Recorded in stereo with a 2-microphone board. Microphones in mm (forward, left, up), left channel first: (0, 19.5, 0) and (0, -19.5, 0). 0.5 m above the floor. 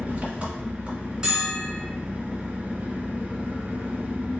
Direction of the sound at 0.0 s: 35° right (ahead or behind).